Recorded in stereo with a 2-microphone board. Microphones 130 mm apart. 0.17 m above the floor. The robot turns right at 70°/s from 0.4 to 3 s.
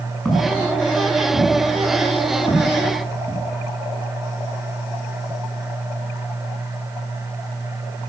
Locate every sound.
0.2 s footsteps: centre (ahead or behind), 9 m; by 3.4 s 20° left (ahead or behind), 11 m